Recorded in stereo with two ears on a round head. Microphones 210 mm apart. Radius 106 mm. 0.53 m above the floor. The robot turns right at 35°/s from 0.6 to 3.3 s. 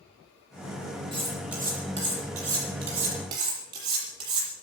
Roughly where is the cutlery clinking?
Right.